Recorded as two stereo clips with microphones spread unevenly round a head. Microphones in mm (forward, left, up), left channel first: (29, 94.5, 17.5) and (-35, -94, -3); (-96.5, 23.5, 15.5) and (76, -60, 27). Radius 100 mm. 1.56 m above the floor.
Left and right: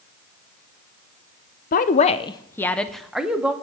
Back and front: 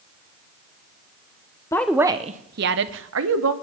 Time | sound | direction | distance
1.7 | a woman speaking | 80° left | 0.5 m